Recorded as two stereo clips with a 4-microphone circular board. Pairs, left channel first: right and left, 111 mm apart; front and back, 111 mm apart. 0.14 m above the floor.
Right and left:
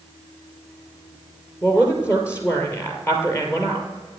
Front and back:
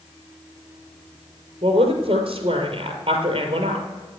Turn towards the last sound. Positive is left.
turn(degrees=-155)